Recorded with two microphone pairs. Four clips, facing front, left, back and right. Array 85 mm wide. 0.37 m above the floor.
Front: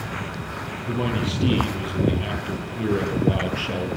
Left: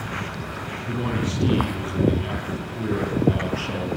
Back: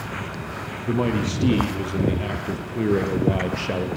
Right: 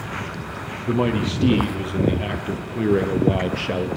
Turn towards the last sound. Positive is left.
turn(degrees=-125)